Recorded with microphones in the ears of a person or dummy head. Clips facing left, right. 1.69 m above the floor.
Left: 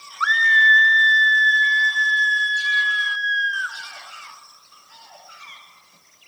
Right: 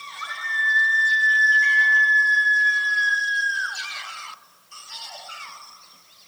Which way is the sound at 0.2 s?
80° left.